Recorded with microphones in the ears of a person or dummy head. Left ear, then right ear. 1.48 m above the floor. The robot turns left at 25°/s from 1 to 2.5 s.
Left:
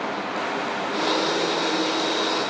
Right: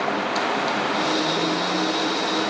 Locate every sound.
Only background noise.